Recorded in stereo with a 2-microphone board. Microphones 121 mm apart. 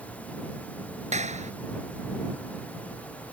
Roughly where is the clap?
Right.